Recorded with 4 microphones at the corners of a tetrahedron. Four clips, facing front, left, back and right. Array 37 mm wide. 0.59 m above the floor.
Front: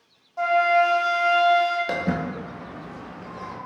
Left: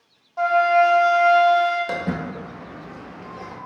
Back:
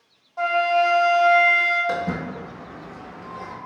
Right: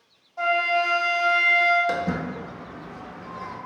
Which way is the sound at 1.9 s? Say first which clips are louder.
Even, even; 10° left.